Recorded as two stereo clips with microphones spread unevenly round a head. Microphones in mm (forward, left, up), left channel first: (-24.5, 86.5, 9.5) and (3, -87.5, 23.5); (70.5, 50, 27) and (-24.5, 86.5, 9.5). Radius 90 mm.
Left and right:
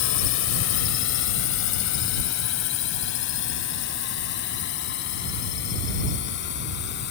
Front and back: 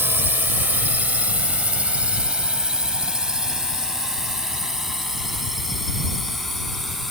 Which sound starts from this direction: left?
A drone, at 0.0 s.